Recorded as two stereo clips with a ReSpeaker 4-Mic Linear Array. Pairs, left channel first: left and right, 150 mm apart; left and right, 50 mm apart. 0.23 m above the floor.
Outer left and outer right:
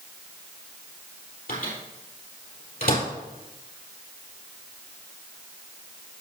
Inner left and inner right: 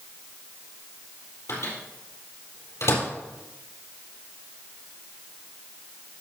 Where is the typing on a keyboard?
No typing on a keyboard in this recording.